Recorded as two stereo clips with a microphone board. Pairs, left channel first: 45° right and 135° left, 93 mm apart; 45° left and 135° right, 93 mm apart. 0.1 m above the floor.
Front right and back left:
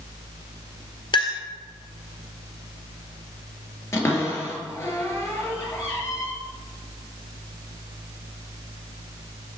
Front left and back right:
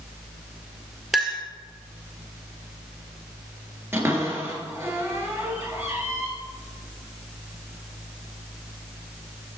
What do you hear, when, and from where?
1.1 s a clink: 50° right, 1.5 m
3.9 s a cupboard door: 90° right, 1.9 m